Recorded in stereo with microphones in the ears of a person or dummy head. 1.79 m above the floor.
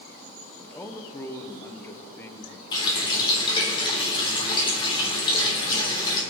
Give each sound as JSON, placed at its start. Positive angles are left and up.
{"t": 0.6, "sound": "a man speaking", "side_deg": 10, "distance_m": 1.5}
{"t": 2.7, "sound": "a running tap", "side_deg": 25, "distance_m": 3.5}